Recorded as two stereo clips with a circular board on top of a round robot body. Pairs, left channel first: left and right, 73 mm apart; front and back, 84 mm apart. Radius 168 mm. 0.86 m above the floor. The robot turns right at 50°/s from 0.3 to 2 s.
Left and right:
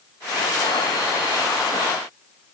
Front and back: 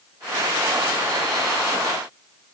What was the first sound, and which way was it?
Only background noise.